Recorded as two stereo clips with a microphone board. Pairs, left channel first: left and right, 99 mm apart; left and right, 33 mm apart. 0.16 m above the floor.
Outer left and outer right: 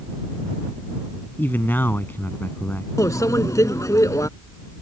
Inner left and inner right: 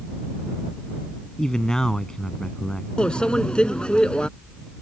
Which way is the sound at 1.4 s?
20° left (ahead or behind).